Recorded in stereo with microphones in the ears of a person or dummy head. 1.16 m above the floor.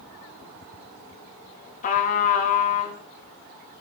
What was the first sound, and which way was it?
A trumpet, 40° left (ahead or behind).